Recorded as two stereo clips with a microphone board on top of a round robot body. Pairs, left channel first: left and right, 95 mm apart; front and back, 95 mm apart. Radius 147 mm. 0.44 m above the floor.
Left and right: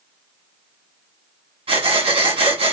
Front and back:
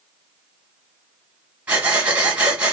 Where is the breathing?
105° right, 2 m.